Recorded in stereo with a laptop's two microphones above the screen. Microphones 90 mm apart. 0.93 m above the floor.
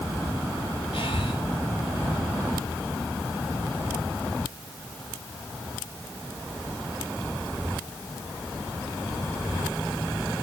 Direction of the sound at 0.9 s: 75° left (ahead or behind).